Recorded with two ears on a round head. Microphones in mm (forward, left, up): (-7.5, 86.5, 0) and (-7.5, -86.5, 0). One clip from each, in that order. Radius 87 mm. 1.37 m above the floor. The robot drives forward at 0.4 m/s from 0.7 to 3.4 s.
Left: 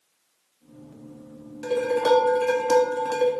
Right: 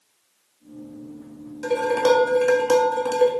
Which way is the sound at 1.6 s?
5° right (ahead or behind).